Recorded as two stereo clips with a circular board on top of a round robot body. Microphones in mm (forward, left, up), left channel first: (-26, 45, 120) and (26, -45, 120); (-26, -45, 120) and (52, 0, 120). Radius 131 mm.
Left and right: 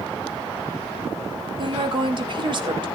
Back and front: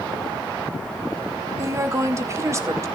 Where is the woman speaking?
25° right, 2 m.